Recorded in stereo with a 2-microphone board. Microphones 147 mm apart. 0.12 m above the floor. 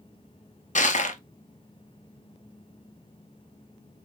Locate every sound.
0.8 s crushing: 55° left (ahead or behind), 0.6 m